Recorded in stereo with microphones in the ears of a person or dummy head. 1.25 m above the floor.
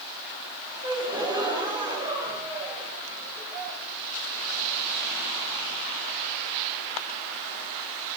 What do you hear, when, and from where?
0.8 s a gasp: 20° right (ahead or behind), 2.5 m